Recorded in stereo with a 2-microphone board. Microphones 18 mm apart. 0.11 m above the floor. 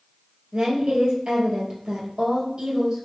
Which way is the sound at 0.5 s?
55° right (ahead or behind).